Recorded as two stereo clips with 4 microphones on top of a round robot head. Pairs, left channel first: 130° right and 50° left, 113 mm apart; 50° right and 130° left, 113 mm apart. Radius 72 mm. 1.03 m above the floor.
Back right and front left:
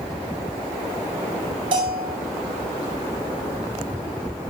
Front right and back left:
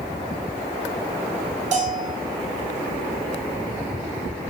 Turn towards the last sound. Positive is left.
turn(degrees=100)